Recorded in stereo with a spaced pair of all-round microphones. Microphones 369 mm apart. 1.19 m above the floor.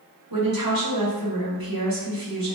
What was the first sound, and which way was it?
A woman speaking, 75° right (ahead or behind).